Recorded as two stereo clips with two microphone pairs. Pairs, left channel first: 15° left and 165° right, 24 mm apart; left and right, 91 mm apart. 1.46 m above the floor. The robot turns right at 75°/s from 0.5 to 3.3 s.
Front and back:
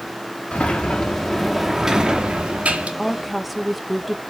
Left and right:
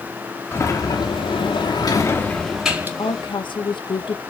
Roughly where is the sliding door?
Ahead left.